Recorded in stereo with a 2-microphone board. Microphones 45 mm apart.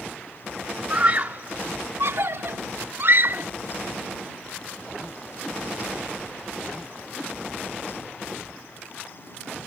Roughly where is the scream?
Right.